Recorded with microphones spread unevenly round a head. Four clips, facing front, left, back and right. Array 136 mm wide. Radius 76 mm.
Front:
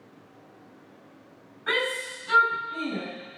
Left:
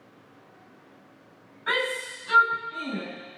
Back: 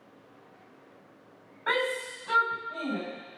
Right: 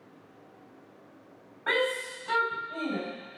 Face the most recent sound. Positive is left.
turn(degrees=-130)